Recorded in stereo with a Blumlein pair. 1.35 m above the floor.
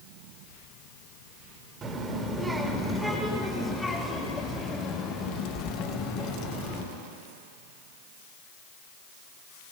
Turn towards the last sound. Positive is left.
turn(degrees=35)